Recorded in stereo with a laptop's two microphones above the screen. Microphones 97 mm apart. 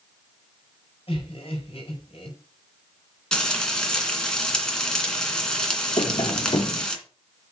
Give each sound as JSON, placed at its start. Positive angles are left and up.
{"t": 1.1, "sound": "laughter", "side_deg": 80, "distance_m": 5.0}
{"t": 3.3, "sound": "frying", "side_deg": 10, "distance_m": 2.5}
{"t": 6.0, "sound": "tapping", "side_deg": 55, "distance_m": 1.4}